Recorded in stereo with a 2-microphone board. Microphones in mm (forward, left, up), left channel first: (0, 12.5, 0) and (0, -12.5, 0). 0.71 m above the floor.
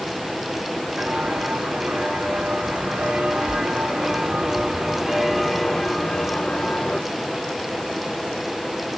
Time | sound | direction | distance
1.0 | footsteps | 75° right (ahead or behind) | 3 m